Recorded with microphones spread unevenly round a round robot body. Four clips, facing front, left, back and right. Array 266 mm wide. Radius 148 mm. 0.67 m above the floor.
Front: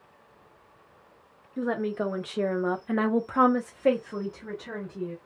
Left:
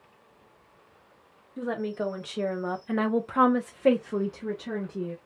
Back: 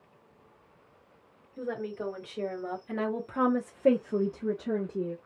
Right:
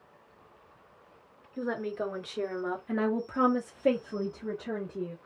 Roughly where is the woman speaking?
Ahead.